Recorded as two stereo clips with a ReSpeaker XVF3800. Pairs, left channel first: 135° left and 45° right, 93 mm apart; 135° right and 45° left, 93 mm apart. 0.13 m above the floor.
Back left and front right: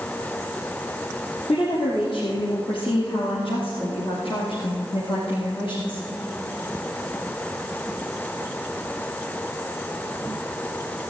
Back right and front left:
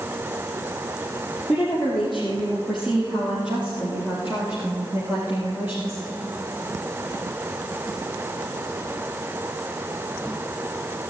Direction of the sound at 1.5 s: 140° left.